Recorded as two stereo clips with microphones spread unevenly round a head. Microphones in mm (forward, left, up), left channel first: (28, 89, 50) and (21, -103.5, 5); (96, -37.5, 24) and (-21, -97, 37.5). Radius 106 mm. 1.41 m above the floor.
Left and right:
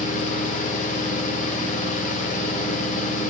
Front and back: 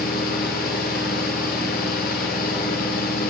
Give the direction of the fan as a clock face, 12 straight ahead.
11 o'clock.